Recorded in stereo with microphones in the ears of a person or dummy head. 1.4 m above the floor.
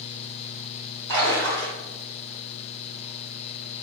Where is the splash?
75° right (ahead or behind), 1.1 m.